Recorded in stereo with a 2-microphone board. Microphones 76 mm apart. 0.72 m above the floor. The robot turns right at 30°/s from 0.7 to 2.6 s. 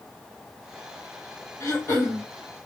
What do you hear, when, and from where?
1.6 s throat clearing: 35° left (ahead or behind), 1.6 m; by 2.2 s 25° left (ahead or behind), 1.6 m